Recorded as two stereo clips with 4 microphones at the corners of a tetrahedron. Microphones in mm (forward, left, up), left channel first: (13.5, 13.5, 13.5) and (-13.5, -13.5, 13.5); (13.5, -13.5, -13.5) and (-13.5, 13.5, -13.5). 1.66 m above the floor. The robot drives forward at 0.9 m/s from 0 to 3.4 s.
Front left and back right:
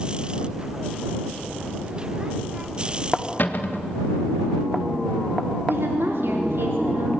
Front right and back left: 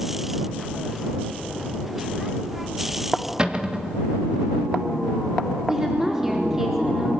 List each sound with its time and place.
3.4 s a cupboard door: 75° left, 1.5 m
5.7 s a woman speaking: 145° right, 4.5 m